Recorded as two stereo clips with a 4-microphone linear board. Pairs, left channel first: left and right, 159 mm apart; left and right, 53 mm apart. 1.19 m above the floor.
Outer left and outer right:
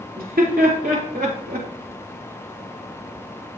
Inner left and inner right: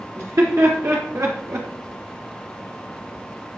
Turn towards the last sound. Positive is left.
turn(degrees=-75)  # may be behind; listen again after turning